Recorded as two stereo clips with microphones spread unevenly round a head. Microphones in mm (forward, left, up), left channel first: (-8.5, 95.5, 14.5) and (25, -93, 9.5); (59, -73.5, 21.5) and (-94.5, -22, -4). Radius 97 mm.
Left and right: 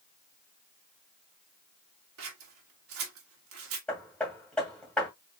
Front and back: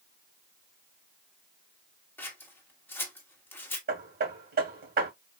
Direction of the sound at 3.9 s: 175° right.